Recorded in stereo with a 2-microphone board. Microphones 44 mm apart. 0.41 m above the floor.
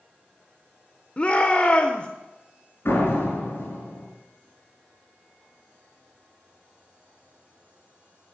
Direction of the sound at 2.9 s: 75° left (ahead or behind).